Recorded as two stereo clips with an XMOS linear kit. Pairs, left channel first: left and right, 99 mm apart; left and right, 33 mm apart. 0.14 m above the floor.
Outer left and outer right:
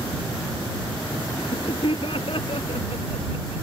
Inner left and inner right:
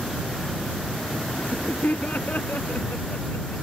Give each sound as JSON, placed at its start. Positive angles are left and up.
{"t": 1.4, "sound": "laughter", "side_deg": 60}